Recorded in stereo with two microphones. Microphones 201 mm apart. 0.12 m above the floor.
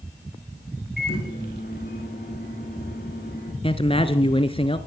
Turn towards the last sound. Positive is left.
turn(degrees=25)  # may be behind; listen again after turning